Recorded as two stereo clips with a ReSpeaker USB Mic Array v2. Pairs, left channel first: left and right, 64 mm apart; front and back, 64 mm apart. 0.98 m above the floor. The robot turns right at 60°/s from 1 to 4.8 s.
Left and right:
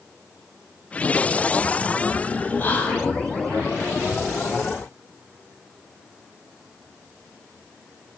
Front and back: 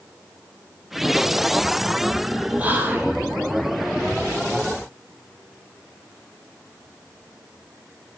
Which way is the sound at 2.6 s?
130° left.